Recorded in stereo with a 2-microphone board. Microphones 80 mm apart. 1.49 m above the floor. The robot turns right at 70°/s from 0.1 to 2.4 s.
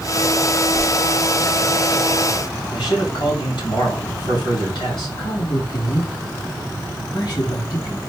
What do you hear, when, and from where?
0.7 s a whoosh: 55° right (ahead or behind), 2 m
2.7 s a man speaking: 80° left, 2.5 m
5.2 s a man speaking: 75° left (ahead or behind), 2.5 m